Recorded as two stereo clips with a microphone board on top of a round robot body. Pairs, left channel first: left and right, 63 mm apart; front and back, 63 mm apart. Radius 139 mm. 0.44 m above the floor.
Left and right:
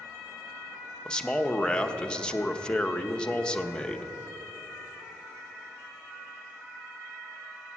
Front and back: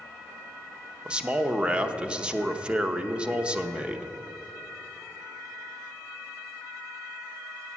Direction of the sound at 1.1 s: 135° left.